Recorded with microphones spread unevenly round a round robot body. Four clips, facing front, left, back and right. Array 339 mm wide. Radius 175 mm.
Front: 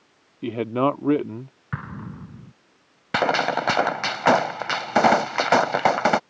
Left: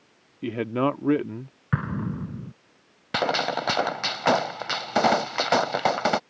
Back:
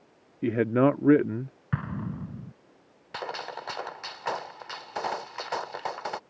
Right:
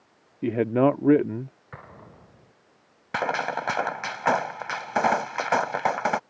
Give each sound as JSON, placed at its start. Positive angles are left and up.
{"t": 0.4, "sound": "a man speaking", "azimuth_deg": -110}
{"t": 1.7, "sound": "an explosion", "azimuth_deg": 105}
{"t": 3.1, "sound": "a gunshot", "azimuth_deg": 10}